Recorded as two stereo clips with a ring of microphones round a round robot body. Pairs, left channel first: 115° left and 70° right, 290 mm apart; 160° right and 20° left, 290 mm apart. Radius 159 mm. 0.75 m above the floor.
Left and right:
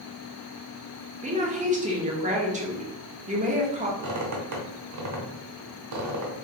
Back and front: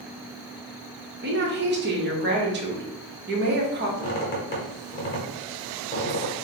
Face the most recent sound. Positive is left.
turn(degrees=-100)